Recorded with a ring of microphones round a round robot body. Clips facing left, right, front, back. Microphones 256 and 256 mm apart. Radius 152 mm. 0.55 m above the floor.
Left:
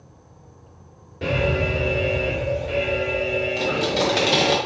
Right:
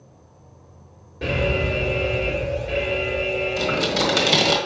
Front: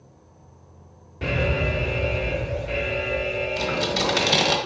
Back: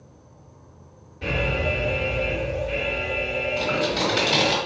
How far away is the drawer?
I don't hear a drawer.